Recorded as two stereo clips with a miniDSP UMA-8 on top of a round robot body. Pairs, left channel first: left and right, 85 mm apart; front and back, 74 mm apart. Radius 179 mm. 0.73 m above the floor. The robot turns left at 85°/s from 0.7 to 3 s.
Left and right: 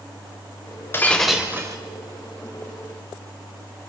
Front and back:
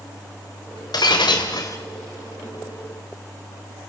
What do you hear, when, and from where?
0.9 s breaking glass: 25° left, 2.5 m; by 1.8 s 45° right, 2.5 m